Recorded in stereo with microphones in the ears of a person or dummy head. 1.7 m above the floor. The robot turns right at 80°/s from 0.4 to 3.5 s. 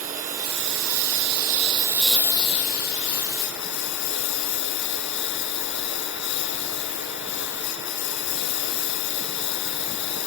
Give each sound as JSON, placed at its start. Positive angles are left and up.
{"t": 0.0, "sound": "a lawn mower", "azimuth_deg": -135}